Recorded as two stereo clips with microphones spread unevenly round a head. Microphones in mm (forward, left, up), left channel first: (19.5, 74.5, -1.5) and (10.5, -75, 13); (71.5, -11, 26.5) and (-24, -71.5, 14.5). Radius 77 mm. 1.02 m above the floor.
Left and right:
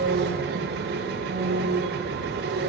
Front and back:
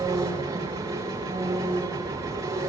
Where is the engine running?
90° right, 9 m.